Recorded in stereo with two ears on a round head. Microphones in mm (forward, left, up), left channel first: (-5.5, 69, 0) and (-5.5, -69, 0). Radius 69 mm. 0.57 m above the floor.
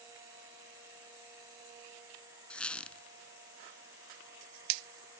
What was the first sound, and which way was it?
A squeak, 5° left (ahead or behind).